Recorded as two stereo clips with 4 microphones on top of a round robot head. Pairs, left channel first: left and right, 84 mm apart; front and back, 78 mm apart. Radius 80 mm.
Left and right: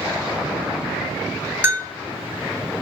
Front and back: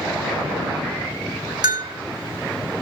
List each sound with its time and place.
1.6 s a bell: 150° right, 2.5 m